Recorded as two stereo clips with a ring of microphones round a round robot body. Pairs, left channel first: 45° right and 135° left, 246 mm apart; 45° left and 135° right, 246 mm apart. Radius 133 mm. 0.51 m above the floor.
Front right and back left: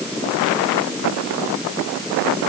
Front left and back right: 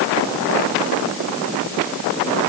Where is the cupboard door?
I don't hear a cupboard door.